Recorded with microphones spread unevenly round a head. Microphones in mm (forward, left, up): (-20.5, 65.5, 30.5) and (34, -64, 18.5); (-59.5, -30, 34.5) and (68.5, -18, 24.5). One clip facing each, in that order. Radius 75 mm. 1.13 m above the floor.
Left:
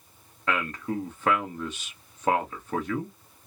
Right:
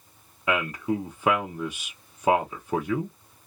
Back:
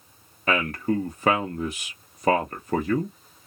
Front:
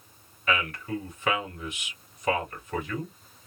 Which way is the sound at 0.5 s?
135° right.